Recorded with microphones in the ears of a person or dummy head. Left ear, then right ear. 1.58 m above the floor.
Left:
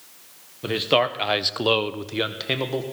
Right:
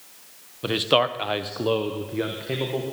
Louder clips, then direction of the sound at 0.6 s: Even; 15° right (ahead or behind).